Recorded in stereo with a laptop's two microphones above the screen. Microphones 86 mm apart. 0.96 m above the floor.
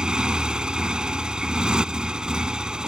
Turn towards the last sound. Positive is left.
turn(degrees=-10)  # may be behind; listen again after turning